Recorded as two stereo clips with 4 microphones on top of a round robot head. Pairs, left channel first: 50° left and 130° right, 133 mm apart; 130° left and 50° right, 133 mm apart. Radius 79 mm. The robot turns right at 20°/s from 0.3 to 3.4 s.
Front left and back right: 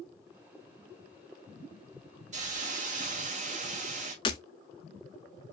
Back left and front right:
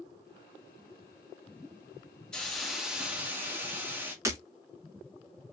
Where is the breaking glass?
10° left, 0.5 m.